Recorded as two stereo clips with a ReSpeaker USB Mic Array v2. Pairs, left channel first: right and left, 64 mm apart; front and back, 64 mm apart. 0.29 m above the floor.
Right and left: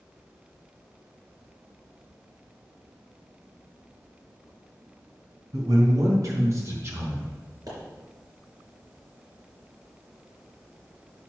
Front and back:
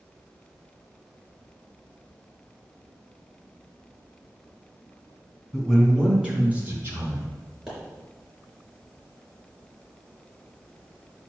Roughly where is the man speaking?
Left.